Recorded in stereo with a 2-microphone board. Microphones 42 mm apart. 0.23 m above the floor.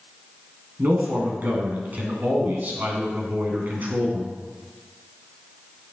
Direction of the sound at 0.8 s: 45° right (ahead or behind).